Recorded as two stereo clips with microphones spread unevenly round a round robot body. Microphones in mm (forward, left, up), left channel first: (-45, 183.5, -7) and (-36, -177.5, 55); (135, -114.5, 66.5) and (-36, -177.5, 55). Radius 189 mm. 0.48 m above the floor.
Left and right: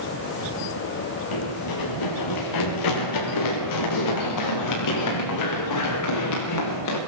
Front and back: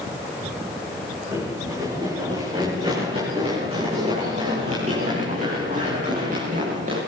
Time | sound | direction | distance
1.3 | running footsteps | 120° left | 8.5 m